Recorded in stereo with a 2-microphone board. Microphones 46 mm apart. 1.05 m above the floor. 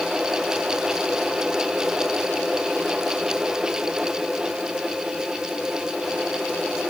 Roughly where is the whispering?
I don't hear whispering.